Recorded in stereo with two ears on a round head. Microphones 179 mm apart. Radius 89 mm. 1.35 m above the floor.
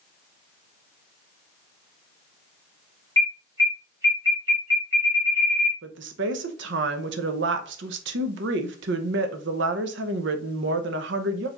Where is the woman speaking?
65° right (ahead or behind), 0.6 m.